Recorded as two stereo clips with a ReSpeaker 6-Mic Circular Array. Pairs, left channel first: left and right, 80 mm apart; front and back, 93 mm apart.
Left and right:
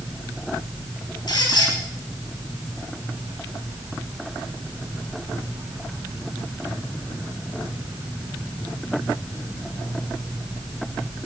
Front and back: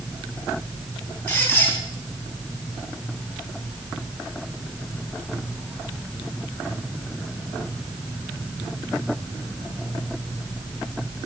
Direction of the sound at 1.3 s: 75° left.